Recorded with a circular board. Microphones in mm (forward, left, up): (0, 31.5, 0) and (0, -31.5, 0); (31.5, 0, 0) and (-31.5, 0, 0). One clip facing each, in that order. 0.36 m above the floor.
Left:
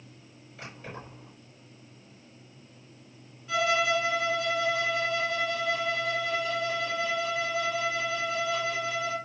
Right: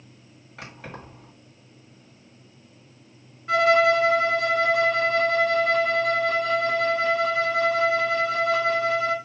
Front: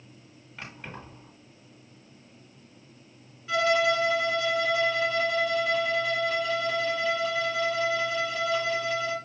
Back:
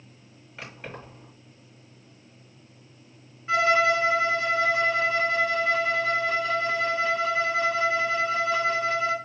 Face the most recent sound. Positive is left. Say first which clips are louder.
# right 8 dB, back 3 dB
turn(degrees=-120)